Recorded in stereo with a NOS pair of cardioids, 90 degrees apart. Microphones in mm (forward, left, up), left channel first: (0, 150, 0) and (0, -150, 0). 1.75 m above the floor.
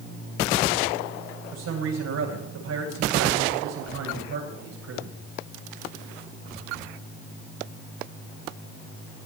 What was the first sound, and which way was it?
A man speaking, 60° right.